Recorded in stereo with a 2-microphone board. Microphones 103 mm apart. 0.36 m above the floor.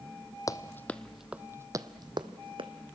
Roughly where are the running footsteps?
Left.